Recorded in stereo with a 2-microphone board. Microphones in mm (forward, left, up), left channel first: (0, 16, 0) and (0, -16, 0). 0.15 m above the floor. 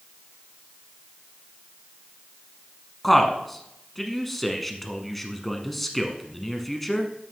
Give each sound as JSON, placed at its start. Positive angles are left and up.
{"t": 3.0, "sound": "a man speaking", "side_deg": 5, "distance_m": 1.1}